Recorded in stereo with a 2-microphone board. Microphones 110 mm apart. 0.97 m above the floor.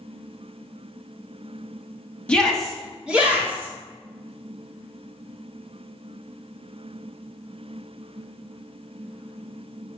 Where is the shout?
10° left (ahead or behind), 1.4 m; by 3.7 s 20° right (ahead or behind), 2 m.